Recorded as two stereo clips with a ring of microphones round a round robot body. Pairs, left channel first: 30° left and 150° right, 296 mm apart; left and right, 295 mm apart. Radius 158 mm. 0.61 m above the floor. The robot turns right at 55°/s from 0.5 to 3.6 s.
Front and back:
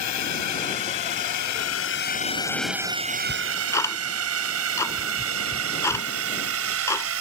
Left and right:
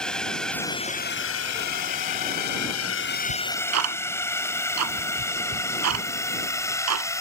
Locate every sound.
0.0 s a drone: straight ahead; by 7.2 s 170° left
3.3 s ticking: 70° right; by 7.1 s 50° right